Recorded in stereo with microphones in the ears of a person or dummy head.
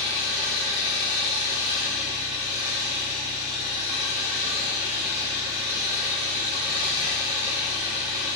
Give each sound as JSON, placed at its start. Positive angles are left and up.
{"t": 0.0, "sound": "an engine running", "side_deg": -25, "distance_m": 1.4}